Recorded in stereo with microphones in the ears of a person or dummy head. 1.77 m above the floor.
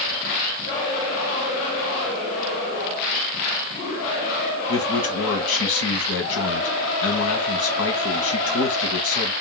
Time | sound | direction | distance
4.7 | a man speaking | 85° left | 1.1 m